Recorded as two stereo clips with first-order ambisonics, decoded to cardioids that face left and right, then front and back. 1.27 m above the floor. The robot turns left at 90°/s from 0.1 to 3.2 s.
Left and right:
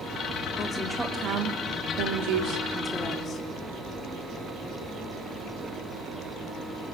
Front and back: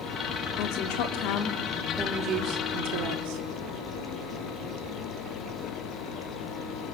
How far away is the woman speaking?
About 3.5 m.